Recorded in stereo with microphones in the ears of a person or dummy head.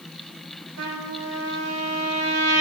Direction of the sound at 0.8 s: 85° right.